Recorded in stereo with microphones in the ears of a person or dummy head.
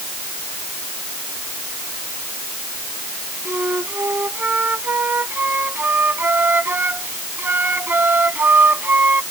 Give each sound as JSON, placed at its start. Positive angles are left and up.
{"t": 3.5, "sound": "a flute", "side_deg": -10}